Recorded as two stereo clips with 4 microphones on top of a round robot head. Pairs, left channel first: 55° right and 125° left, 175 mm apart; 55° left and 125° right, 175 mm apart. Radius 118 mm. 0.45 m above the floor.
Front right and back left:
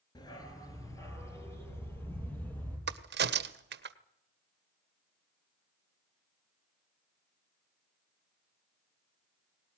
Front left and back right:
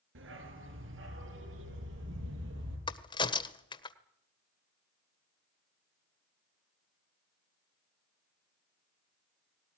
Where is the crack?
120° left, 1.5 m.